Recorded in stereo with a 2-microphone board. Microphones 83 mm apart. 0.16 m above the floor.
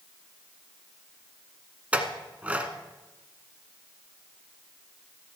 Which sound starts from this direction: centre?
A clink, at 1.9 s.